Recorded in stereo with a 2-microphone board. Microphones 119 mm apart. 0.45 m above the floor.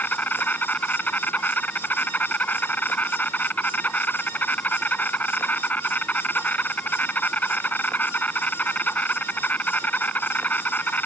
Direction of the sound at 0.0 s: 15° left (ahead or behind).